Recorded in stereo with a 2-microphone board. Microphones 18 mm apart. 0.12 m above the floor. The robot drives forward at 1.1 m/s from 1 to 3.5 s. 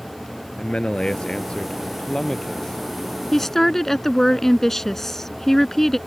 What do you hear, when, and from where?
0.6 s a man speaking: 55° left (ahead or behind); by 2.8 s 35° left (ahead or behind)
3.3 s a woman speaking: 20° left (ahead or behind)